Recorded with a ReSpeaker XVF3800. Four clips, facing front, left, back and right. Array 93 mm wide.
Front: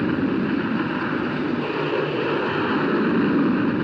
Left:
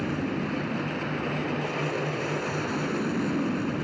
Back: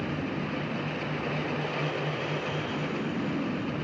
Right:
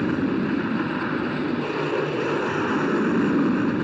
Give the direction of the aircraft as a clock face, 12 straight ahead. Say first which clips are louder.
Right 6 dB, front 10 dB; 1 o'clock.